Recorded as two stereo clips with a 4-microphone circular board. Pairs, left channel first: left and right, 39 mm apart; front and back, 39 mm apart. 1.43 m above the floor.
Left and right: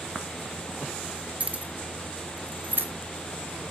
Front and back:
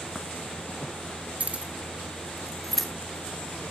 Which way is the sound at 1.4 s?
135° right.